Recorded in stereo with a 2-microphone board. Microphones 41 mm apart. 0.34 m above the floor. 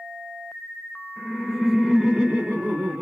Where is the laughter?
20° left (ahead or behind), 0.9 m; by 3.0 s 35° right (ahead or behind), 1.1 m.